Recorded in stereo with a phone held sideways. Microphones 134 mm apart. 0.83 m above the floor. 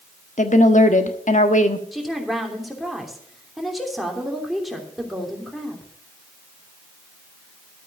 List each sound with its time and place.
0.4 s a woman speaking: 70° left (ahead or behind), 1.3 m
1.9 s a woman speaking: centre (ahead or behind), 3 m